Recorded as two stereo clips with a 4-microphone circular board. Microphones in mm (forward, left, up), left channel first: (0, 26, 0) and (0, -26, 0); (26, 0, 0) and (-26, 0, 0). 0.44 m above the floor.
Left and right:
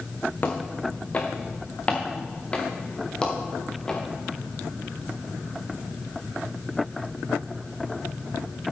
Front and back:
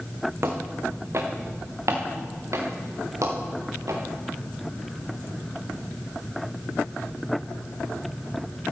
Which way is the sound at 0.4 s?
140° left.